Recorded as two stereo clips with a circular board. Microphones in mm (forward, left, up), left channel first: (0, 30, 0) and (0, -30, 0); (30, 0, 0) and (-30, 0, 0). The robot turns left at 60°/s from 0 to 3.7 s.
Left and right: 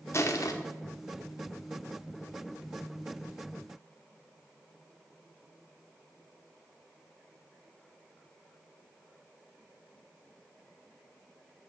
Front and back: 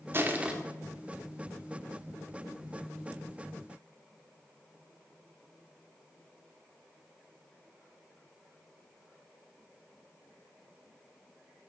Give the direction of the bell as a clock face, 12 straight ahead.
No bell in this recording.